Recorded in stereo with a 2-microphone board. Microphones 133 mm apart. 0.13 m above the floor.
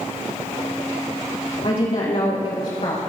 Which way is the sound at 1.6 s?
45° left (ahead or behind).